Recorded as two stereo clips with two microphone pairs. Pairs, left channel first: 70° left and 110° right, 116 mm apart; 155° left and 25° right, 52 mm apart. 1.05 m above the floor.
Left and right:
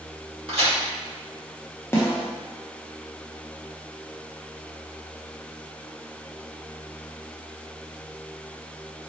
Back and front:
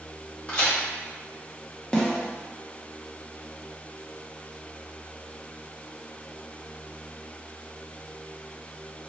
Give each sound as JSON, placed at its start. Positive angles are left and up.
{"t": 0.5, "sound": "a crack", "azimuth_deg": -145, "distance_m": 1.5}
{"t": 1.9, "sound": "a snare drum", "azimuth_deg": 105, "distance_m": 0.7}